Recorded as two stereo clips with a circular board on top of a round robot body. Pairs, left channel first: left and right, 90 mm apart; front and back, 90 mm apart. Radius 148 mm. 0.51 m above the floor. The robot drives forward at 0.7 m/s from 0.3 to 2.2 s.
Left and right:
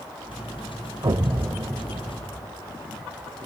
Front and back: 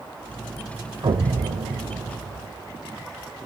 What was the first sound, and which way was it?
An explosion, 135° right.